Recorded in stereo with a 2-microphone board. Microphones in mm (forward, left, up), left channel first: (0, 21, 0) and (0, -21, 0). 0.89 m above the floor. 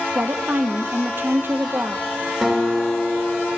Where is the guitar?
Centre (ahead or behind), 2.5 m.